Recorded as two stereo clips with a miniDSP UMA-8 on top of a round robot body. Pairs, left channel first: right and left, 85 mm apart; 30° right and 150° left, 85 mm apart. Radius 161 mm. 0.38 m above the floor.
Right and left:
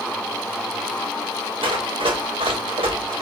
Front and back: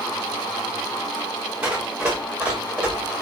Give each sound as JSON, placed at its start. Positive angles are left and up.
{"t": 1.6, "sound": "running footsteps", "azimuth_deg": 70, "distance_m": 7.5}